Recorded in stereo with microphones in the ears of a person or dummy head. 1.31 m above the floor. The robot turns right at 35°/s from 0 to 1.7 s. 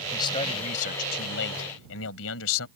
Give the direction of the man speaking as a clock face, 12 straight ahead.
11 o'clock.